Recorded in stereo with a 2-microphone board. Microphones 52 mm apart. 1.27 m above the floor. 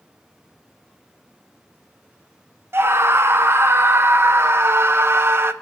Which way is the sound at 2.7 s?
50° right (ahead or behind).